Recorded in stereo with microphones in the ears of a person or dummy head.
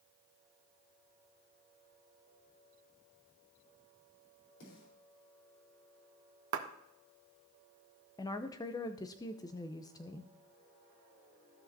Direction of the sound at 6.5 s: 70° right (ahead or behind).